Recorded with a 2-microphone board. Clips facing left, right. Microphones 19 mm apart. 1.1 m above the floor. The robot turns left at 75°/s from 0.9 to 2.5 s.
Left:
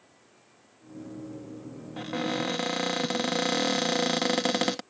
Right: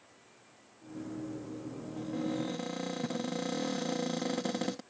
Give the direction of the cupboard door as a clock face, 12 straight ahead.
9 o'clock.